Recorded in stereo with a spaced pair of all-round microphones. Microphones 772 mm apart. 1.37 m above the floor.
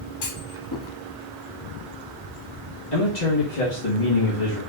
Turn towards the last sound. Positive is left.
turn(degrees=60)  # may be behind; listen again after turning